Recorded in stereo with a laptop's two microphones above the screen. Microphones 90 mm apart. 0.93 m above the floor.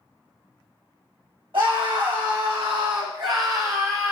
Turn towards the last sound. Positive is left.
turn(degrees=-35)  # may be behind; listen again after turning